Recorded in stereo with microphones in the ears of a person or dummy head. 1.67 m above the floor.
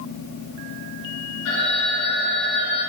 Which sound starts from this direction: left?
A phone ringing, at 1.4 s.